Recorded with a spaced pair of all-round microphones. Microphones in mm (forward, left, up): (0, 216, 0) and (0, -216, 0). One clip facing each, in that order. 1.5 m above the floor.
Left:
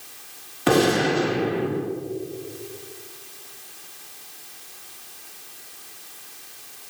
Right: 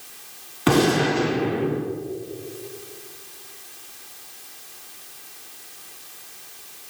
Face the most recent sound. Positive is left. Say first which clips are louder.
# even
turn(degrees=-20)  # may be behind; listen again after turning